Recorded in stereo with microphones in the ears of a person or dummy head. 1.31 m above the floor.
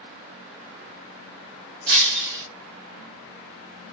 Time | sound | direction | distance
1.9 | breaking glass | 55° right (ahead or behind) | 1.7 m